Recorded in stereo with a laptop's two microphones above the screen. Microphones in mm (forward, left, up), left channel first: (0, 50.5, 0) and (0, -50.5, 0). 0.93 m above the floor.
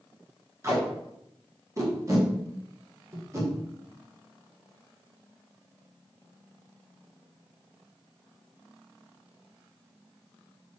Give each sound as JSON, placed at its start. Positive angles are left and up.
{"t": 0.6, "sound": "tape being pulled", "side_deg": -30, "distance_m": 0.7}